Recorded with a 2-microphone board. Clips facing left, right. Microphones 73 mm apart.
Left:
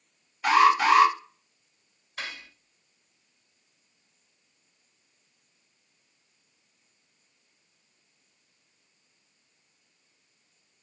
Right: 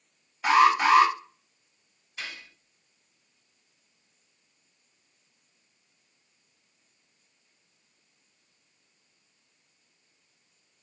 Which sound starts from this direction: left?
Cutlery clinking, at 2.2 s.